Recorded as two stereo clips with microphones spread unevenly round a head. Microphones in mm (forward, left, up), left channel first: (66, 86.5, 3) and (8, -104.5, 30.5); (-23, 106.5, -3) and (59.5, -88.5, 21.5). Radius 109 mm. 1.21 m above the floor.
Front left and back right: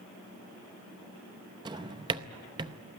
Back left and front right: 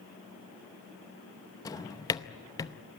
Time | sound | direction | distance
1.6 | a drawer | 170° right | 0.6 m